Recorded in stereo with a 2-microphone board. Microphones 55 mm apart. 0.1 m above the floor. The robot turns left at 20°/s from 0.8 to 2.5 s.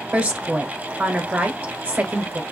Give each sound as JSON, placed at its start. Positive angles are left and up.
{"t": 0.1, "sound": "a woman speaking", "azimuth_deg": -50, "distance_m": 1.2}